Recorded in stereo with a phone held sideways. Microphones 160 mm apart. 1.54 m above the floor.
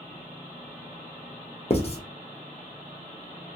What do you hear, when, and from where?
1.7 s writing: 40° left (ahead or behind), 0.6 m